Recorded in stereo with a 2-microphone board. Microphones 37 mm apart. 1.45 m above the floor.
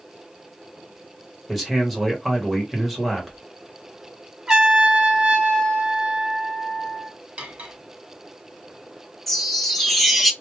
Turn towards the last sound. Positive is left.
turn(degrees=5)  # may be behind; listen again after turning